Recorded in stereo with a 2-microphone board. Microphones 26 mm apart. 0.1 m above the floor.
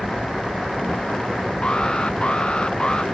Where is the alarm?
35° left (ahead or behind).